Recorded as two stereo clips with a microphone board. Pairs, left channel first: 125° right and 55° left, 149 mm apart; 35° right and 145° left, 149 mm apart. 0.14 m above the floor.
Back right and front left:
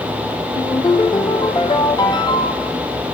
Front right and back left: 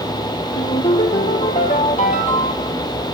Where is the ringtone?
65° right, 1.7 m.